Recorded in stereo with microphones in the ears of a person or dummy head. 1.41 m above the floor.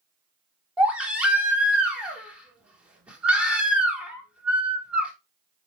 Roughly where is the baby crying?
Centre.